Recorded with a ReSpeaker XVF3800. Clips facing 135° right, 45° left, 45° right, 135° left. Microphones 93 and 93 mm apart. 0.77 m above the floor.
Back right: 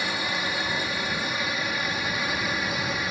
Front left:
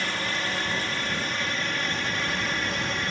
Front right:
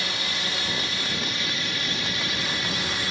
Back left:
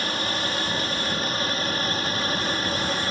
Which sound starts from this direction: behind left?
A drone, at 0.0 s.